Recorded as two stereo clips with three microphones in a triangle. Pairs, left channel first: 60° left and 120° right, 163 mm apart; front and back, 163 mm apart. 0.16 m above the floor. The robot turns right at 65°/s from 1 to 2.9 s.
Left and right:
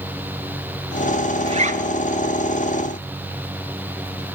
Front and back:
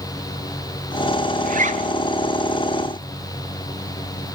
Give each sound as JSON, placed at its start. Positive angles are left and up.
{"t": 1.4, "sound": "a zipper", "azimuth_deg": -165, "distance_m": 1.0}